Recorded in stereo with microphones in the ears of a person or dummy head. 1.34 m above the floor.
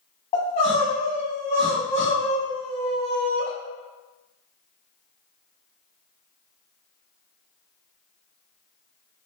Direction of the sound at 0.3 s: 30° left (ahead or behind).